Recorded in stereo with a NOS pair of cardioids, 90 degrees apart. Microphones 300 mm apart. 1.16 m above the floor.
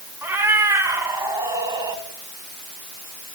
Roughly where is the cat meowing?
Ahead.